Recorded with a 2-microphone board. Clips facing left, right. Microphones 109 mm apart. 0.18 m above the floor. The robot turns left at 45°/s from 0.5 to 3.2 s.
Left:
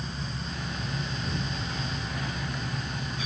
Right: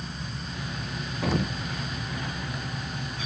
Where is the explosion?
85° right; by 1.6 s 75° right (ahead or behind).